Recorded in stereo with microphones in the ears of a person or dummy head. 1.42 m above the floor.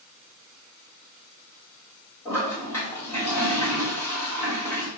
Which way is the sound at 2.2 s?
15° left (ahead or behind).